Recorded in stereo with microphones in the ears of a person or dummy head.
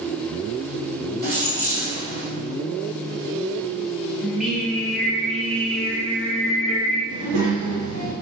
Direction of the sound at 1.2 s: 50° right (ahead or behind).